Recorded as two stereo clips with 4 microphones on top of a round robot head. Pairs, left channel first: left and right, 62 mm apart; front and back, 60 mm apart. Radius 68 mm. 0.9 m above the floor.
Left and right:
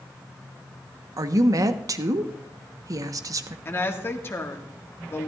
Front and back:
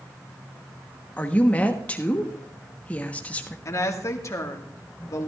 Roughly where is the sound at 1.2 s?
Ahead right.